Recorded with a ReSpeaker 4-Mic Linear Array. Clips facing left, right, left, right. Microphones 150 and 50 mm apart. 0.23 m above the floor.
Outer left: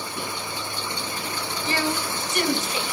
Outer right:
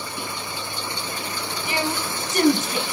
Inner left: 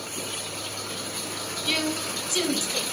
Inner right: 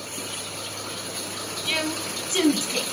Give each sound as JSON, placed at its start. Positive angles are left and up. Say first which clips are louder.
{"t": 1.6, "sound": "a woman speaking", "louder": "even, even", "side_deg": -15, "distance_m": 1.3}